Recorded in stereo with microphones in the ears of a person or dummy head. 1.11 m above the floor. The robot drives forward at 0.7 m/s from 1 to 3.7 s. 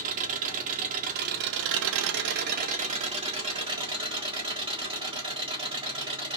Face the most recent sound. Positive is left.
turn(degrees=-25)  # may be behind; listen again after turning